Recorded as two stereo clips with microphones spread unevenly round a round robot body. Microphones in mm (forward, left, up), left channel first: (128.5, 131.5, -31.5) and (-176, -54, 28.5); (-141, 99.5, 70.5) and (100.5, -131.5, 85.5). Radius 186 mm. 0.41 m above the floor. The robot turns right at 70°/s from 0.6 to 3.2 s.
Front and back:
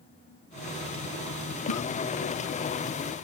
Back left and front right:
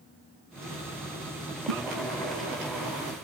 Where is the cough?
15° right; by 1.8 s 5° right.